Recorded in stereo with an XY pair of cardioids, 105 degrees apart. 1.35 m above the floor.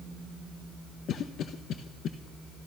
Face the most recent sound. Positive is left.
turn(degrees=65)